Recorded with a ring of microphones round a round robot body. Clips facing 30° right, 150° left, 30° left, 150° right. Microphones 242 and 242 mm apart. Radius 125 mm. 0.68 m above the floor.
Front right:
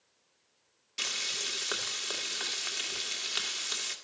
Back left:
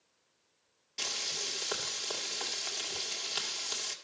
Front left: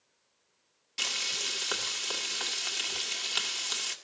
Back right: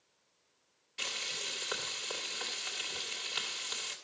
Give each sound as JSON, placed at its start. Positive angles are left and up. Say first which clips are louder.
{"t": 1.0, "sound": "frying", "louder": "back left 1 dB, front left 2 dB", "azimuth_deg": 45, "distance_m": 1.7}